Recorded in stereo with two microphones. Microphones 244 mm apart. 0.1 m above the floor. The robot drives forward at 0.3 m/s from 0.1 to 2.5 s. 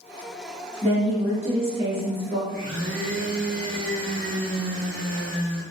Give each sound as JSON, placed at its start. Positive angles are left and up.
{"t": 0.8, "sound": "a woman speaking", "side_deg": -25, "distance_m": 1.3}
{"t": 2.5, "sound": "a blender", "side_deg": -35, "distance_m": 1.4}